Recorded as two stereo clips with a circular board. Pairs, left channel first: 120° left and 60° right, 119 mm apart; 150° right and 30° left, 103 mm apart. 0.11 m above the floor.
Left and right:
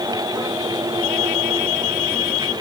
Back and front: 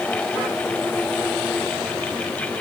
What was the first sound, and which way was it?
Only background noise.